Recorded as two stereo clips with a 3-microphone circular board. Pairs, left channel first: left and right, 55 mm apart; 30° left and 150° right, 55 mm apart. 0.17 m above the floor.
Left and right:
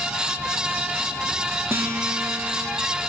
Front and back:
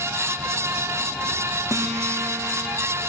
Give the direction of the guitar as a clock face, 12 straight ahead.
5 o'clock.